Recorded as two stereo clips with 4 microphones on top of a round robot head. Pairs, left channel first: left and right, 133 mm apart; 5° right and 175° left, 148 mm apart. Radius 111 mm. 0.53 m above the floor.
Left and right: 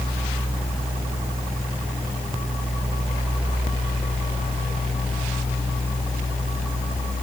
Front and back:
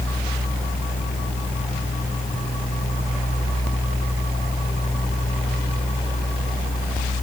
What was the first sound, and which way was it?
Only background noise.